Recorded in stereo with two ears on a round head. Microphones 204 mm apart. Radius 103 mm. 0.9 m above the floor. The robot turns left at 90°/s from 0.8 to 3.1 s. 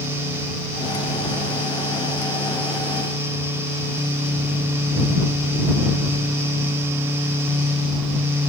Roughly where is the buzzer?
I don't hear a buzzer.